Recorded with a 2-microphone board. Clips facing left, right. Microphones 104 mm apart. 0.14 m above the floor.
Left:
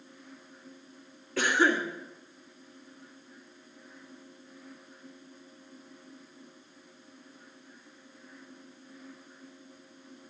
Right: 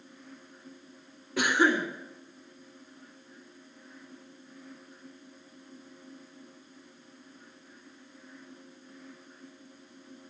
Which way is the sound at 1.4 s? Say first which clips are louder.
Right 1 dB; 20° right (ahead or behind).